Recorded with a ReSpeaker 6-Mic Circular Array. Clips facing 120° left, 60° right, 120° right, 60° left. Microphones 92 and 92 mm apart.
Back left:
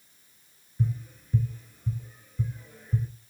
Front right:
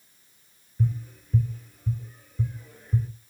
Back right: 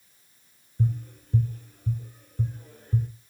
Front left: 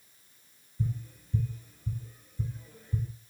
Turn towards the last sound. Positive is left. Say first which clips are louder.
# front right 2 dB, back right 6 dB
turn(degrees=-150)